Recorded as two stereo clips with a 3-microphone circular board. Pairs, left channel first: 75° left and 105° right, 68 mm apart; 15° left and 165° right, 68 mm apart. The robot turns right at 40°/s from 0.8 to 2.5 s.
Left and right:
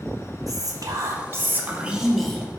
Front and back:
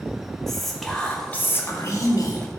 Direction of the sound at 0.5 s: 70° right.